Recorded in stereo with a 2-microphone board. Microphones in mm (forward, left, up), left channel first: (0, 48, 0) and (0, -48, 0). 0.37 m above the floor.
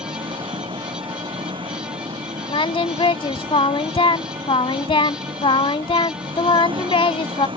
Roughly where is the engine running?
Right.